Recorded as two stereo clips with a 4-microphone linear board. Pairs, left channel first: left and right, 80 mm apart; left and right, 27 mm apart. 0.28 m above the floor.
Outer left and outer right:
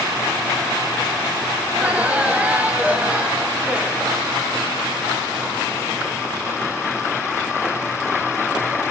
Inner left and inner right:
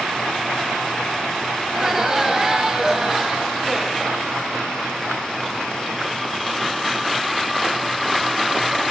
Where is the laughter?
20° right (ahead or behind), 1.7 m.